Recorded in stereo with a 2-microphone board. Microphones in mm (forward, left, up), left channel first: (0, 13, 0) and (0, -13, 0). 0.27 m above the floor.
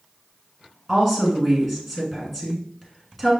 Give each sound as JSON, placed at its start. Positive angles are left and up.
{"t": 0.9, "sound": "a woman speaking", "side_deg": 5, "distance_m": 1.3}